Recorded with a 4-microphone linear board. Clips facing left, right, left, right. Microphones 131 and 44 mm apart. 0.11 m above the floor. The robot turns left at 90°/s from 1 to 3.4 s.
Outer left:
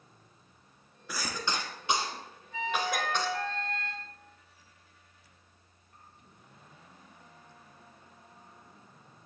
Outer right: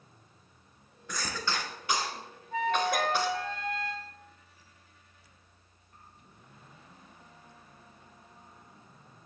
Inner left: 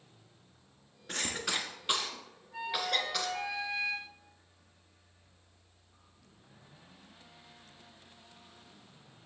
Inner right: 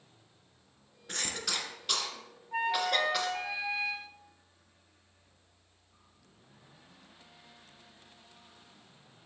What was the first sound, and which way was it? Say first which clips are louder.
A cough: even, inner left 1 dB; 5° left (ahead or behind).